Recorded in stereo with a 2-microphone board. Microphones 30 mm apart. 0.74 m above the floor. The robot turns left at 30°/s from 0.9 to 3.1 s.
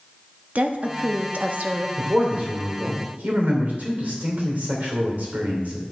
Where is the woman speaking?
55° right (ahead or behind), 0.9 m; by 1.9 s 45° right (ahead or behind), 0.9 m.